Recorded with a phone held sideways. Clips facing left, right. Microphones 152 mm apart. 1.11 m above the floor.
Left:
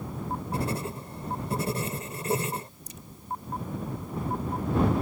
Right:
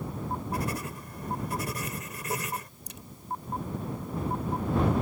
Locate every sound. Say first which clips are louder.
0.5 s writing: left 2 dB; 30° left (ahead or behind)
2.9 s a crack: left 1 dB; 75° right (ahead or behind)